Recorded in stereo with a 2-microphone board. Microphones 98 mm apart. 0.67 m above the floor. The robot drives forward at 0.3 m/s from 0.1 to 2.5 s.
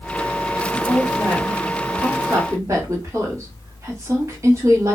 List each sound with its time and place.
0.7 s a woman speaking: 30° right (ahead or behind), 1.3 m